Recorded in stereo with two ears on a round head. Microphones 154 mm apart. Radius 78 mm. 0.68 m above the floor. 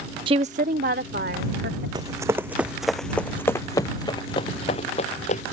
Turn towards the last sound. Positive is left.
turn(degrees=40)  # may be behind; listen again after turning